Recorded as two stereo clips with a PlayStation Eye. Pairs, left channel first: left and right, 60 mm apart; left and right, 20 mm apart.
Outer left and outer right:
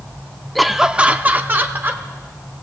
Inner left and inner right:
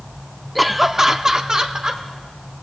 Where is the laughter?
Centre (ahead or behind), 0.6 m; by 2.0 s 40° right (ahead or behind), 1.1 m.